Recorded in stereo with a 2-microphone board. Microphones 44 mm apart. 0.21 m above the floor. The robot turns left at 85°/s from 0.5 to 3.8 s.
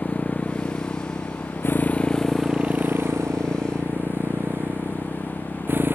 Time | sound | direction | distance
0.0 | a motorcycle | 155° left | ?